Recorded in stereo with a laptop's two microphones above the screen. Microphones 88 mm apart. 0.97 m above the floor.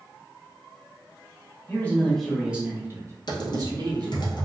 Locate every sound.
1.7 s a man speaking: 25° left (ahead or behind), 0.7 m; by 4.3 s 60° right (ahead or behind), 1.2 m
3.3 s typing on a keyboard: 55° left (ahead or behind), 0.7 m